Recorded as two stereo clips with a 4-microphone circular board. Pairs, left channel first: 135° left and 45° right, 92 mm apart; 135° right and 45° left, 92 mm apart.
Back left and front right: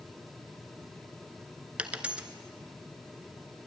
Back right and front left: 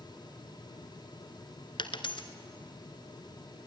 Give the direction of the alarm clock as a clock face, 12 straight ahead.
I don't hear an alarm clock.